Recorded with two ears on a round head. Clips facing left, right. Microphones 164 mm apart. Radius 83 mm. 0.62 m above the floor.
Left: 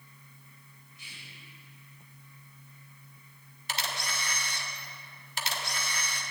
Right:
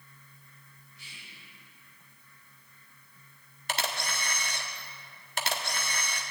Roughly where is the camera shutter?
Right.